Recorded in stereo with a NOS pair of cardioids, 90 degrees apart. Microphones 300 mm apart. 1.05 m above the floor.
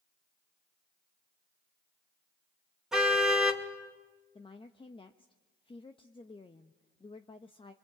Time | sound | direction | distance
2.9 | a car horn | straight ahead | 3 m
4.3 | a woman speaking | 20° left | 1.0 m